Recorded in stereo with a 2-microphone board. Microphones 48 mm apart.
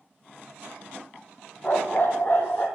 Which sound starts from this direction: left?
A dog barking, at 1.6 s.